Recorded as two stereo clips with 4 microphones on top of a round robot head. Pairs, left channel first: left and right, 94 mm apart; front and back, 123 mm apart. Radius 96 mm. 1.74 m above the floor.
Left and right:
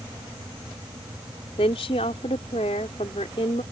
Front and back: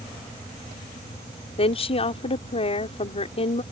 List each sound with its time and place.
1.6 s a woman speaking: 40° left